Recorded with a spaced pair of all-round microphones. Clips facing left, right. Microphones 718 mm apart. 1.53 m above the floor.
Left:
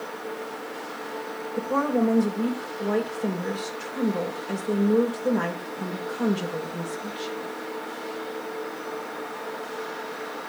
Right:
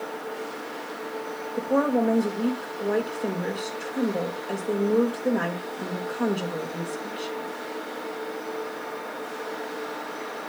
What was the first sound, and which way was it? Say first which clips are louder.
A woman speaking: right 1 dB; 35° left (ahead or behind).